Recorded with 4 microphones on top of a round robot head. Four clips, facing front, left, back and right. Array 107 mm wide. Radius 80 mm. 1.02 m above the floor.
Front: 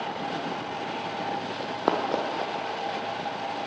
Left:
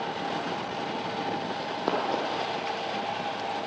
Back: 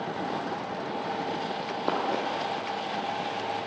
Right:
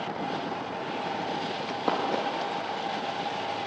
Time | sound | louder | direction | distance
1.6 | running footsteps | right 1 dB, front 4 dB | 5° left | 1.6 m